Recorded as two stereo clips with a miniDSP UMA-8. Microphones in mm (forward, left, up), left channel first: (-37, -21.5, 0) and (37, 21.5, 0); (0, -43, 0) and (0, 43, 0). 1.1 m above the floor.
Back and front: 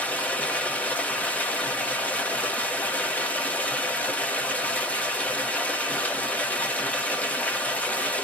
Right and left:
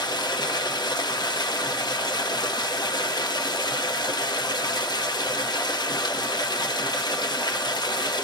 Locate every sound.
0.0 s running water: 80° right, 0.7 m